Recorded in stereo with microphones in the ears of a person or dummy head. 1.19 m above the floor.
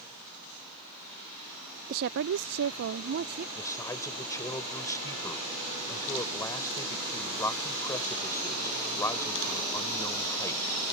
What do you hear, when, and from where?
1.9 s a woman speaking: 35° right (ahead or behind); by 3.5 s 55° right (ahead or behind)
3.5 s a man speaking: 10° left (ahead or behind)